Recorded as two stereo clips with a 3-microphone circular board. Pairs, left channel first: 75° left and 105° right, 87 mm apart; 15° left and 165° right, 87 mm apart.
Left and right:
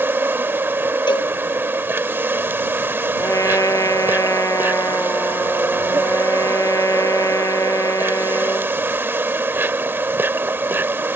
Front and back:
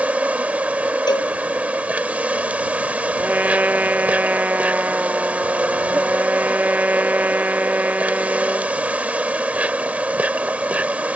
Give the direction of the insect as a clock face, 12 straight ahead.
4 o'clock.